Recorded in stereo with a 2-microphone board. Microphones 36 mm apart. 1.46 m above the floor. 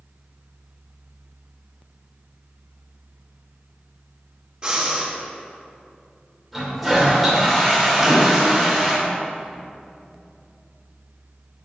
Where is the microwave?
15° right (ahead or behind), 2 m.